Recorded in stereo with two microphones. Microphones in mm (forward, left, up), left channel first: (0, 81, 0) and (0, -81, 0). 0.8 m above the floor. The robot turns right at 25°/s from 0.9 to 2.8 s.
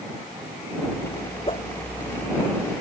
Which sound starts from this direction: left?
A whoosh, at 1.5 s.